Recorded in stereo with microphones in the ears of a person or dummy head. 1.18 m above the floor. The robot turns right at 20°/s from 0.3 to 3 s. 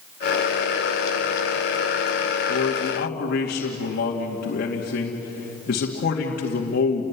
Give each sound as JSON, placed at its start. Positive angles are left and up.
{"t": 2.5, "sound": "a man speaking", "side_deg": 60, "distance_m": 2.5}